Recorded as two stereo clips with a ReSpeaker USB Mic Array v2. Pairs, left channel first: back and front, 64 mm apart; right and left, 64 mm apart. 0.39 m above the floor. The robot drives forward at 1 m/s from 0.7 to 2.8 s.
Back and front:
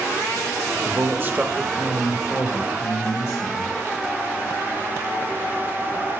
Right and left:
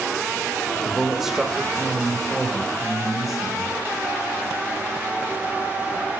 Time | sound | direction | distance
0.8 | a man speaking | 5° left | 1.2 m